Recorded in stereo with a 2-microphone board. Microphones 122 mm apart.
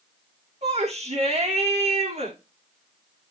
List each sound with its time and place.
0.6 s a shout: 65° right (ahead or behind), 8 m